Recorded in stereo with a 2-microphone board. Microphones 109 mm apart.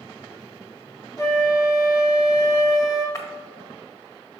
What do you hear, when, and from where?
1.2 s a flute: 30° left (ahead or behind), 1.9 m
3.1 s breaking glass: 30° left (ahead or behind), 1.3 m